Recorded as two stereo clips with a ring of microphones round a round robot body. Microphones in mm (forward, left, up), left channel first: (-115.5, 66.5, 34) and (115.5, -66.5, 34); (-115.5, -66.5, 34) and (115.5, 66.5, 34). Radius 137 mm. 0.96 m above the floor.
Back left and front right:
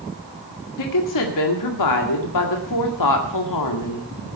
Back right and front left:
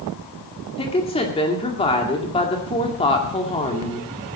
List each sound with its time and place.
0.8 s a woman speaking: 140° left, 2 m